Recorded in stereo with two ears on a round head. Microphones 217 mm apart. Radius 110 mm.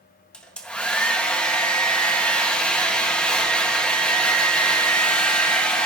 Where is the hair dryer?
5° left (ahead or behind), 1.1 m.